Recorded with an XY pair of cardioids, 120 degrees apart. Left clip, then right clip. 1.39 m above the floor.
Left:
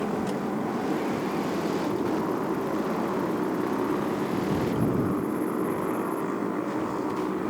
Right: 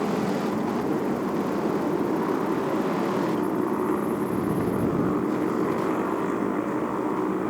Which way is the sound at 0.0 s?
15° right.